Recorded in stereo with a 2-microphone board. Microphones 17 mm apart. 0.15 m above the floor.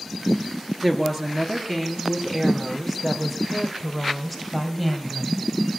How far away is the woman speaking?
About 2.5 m.